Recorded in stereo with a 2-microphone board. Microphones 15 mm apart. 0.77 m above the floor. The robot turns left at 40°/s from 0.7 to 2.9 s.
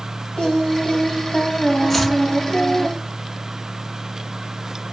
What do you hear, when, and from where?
0.4 s singing: 120° left, 1.9 m; by 2.9 s 30° left, 1.9 m
1.9 s chopping: 20° left (ahead or behind), 0.7 m; by 2.2 s 10° left (ahead or behind), 0.7 m